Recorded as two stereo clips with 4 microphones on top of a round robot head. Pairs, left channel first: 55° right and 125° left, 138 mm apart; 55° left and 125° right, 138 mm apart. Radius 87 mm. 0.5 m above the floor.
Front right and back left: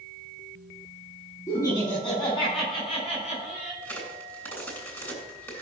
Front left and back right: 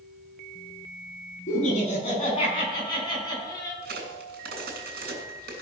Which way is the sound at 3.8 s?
130° right.